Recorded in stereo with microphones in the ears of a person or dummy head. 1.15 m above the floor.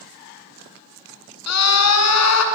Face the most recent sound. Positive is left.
turn(degrees=80)